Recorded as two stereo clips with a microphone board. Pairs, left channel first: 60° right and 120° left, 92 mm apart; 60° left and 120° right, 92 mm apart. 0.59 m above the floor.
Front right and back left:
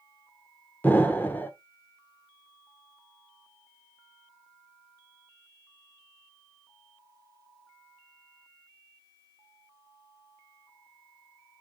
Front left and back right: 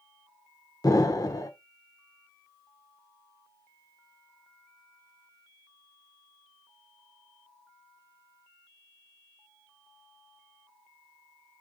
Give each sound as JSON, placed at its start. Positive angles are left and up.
{"t": 0.8, "sound": "an explosion", "azimuth_deg": 10, "distance_m": 0.9}